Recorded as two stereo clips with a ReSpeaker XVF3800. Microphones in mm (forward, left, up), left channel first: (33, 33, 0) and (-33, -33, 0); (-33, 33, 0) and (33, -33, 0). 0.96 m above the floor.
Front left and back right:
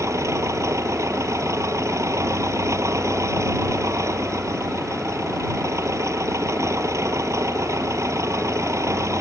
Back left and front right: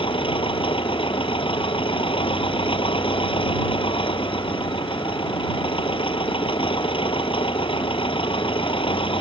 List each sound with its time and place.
0.0 s an engine running: 165° left